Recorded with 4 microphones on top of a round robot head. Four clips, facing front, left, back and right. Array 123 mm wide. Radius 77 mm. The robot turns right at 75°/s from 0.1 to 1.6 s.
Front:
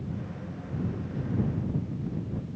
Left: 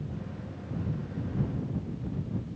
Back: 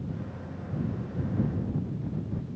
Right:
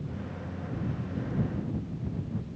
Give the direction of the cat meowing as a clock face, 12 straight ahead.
I don't hear a cat meowing.